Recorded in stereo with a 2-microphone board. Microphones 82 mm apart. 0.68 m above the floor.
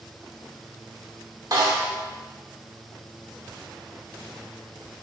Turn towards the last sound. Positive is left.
turn(degrees=-50)  # may be behind; listen again after turning